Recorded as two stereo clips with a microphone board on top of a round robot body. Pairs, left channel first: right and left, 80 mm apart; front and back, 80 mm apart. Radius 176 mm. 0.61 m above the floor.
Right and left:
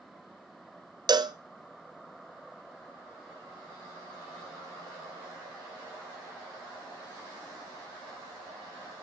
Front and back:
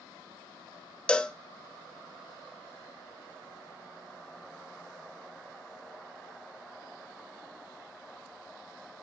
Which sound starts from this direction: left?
A cowbell, at 1.1 s.